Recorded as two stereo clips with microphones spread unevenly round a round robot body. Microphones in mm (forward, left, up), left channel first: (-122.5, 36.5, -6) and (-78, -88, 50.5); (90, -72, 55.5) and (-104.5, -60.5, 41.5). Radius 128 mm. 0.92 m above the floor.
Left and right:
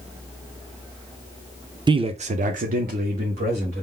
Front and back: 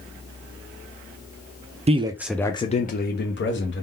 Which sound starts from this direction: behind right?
A man speaking, at 1.9 s.